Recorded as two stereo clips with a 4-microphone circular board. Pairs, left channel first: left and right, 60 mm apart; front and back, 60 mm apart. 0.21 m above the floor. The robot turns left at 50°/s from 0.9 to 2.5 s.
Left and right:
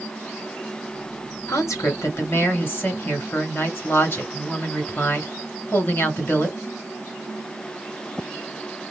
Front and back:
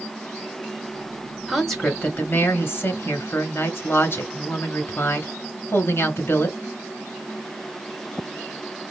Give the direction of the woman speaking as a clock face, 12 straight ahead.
9 o'clock.